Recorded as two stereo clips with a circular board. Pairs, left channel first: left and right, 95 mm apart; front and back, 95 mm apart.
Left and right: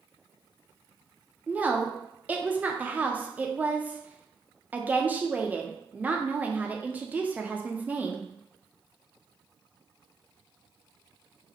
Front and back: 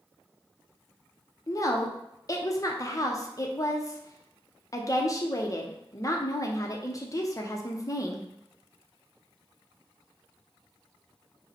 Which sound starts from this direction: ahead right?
A woman speaking, at 1.5 s.